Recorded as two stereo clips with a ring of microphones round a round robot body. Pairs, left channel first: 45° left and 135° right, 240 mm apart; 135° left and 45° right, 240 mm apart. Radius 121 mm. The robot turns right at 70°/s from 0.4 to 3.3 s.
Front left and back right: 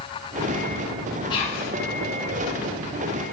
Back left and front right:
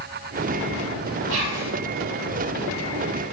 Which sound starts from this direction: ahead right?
Whispering, at 1.3 s.